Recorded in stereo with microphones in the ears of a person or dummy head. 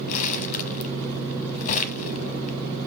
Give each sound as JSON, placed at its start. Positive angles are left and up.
{"t": 0.1, "sound": "crumpling", "side_deg": 40, "distance_m": 0.9}